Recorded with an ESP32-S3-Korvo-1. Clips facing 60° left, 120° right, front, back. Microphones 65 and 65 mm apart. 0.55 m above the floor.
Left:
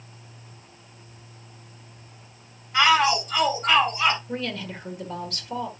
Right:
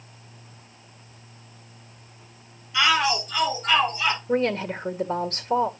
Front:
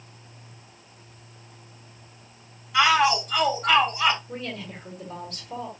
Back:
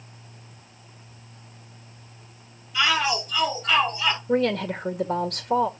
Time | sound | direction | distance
2.7 | a shout | 15° left | 5 m
4.3 | a woman speaking | 165° right | 1.5 m